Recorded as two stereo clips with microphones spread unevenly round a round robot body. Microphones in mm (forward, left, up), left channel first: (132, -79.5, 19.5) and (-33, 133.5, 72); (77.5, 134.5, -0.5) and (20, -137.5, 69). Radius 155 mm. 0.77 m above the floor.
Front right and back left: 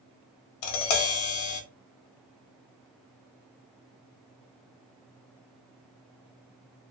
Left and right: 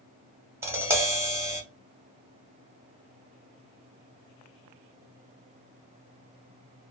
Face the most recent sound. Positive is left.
turn(degrees=-25)